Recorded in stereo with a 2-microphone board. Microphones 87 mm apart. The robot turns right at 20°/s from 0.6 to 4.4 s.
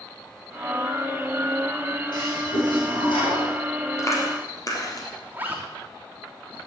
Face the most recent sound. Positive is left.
turn(degrees=-20)  # may be behind; listen again after turning